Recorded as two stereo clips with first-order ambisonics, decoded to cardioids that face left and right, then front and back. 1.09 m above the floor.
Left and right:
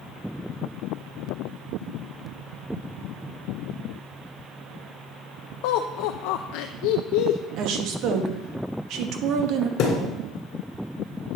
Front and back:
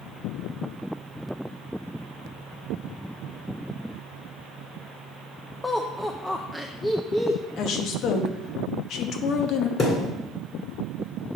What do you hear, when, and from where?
5.6 s laughter: 85° left, 0.5 m
7.6 s a woman speaking: 50° right, 1.1 m
9.8 s a thud: 55° left, 1.9 m